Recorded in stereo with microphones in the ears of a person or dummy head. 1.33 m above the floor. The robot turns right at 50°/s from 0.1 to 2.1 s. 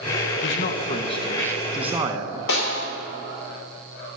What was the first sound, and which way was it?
A man speaking, 115° left.